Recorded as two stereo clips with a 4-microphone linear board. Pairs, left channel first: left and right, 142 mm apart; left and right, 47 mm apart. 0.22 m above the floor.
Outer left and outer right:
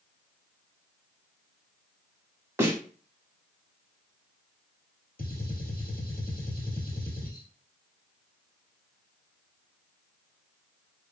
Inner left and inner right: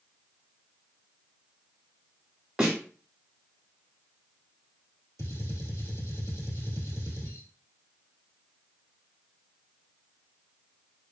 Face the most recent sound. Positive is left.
turn(degrees=80)